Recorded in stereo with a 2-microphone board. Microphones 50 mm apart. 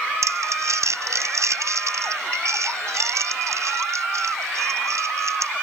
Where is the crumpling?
80° right.